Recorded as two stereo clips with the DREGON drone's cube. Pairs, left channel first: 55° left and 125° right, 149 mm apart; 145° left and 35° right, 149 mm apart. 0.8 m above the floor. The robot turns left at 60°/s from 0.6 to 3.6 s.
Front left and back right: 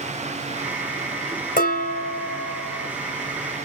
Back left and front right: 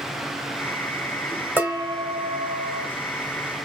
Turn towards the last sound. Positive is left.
turn(degrees=-75)